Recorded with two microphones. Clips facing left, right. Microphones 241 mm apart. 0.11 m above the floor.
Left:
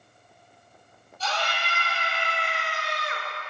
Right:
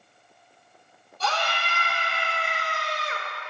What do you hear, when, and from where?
1.2 s a scream: 65° right (ahead or behind), 3 m; by 3.3 s 25° right (ahead or behind), 1.5 m